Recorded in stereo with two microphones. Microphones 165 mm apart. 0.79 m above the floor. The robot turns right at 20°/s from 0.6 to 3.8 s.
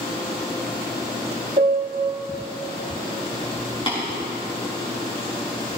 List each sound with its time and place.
1.6 s a piano: 55° right (ahead or behind), 1.0 m; by 2.1 s 65° right (ahead or behind), 1.0 m
3.9 s tapping: 35° left (ahead or behind), 5.5 m